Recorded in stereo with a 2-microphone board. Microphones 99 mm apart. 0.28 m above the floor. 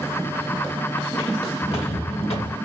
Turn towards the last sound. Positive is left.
turn(degrees=65)  # may be behind; listen again after turning